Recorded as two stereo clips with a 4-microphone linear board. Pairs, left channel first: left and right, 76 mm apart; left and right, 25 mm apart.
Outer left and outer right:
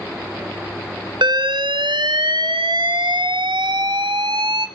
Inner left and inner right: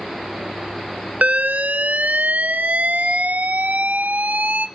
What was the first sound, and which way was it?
An alarm, 90° right.